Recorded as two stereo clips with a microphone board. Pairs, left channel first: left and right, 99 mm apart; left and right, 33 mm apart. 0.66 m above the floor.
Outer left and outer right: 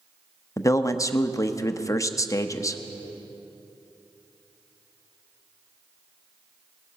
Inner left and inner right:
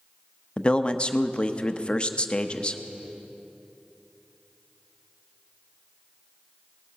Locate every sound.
0.6 s a man speaking: 30° left (ahead or behind), 0.5 m